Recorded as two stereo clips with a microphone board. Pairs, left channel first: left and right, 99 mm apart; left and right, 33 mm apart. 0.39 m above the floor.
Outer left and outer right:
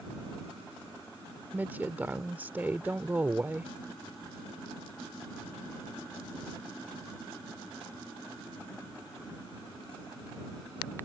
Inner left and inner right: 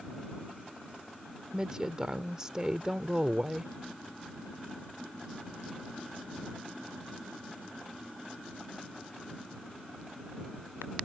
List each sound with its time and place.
1.5 s a woman speaking: 20° right (ahead or behind)